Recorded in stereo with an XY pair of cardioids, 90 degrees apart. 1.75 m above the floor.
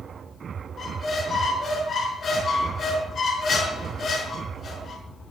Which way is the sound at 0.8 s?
60° left.